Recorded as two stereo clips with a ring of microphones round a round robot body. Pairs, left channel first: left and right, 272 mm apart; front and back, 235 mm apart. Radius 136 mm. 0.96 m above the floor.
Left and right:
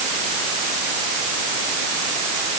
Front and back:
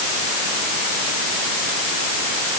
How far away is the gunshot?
I don't hear a gunshot.